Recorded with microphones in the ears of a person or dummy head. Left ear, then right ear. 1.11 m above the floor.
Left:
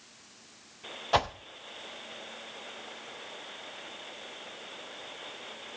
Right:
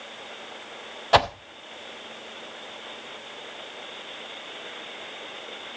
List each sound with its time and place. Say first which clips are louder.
1.1 s a whoosh: right 8 dB; 20° right (ahead or behind), 0.6 m